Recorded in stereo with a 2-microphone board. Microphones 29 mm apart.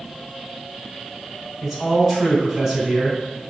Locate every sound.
1.6 s a man speaking: 10° right (ahead or behind), 3 m